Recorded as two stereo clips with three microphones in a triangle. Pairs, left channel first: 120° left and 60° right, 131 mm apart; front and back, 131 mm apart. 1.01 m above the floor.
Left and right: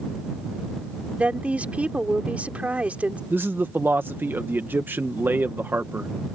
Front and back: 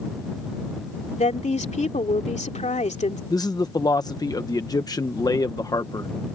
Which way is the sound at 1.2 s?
20° left.